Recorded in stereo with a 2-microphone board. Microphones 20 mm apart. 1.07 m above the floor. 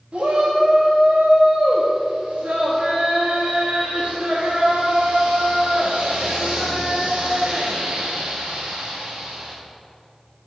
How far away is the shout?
About 1.9 m.